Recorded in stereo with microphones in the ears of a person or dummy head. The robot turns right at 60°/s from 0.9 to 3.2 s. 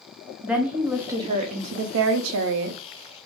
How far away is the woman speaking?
About 0.6 m.